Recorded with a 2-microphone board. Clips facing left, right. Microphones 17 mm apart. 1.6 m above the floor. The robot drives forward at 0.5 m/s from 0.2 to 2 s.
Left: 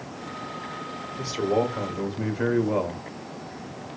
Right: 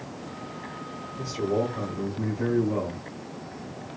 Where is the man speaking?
85° left, 1.0 m; by 3.0 s 65° left (ahead or behind), 1.1 m.